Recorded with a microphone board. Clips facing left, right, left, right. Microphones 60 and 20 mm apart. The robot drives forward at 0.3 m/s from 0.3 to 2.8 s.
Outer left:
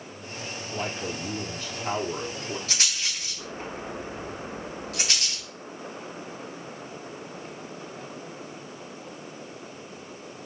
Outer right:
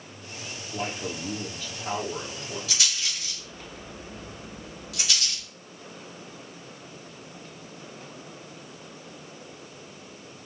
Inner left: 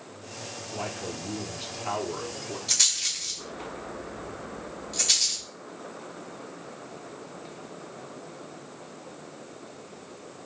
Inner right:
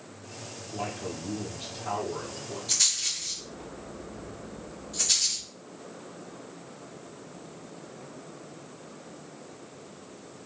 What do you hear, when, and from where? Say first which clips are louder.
0.7 s a man speaking: even, even; 65° left (ahead or behind), 3 m; by 2.6 s 70° left (ahead or behind), 3 m
2.7 s a rattle: even, inner left 2 dB; 45° left (ahead or behind), 2.5 m